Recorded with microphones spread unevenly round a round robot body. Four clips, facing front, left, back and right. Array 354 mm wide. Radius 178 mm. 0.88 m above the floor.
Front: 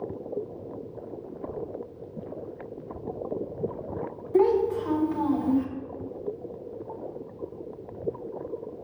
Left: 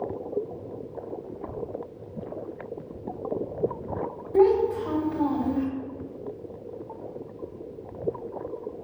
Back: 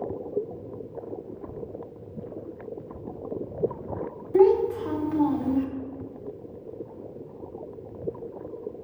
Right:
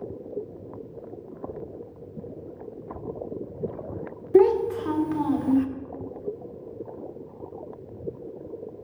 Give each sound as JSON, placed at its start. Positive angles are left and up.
{"t": 4.3, "sound": "a child speaking", "azimuth_deg": -110, "distance_m": 1.3}